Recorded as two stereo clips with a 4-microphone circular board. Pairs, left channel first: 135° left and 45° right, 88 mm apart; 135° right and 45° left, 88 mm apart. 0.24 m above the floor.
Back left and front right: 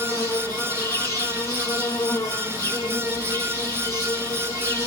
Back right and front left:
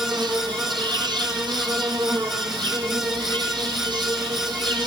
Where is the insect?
75° left, 6.5 m.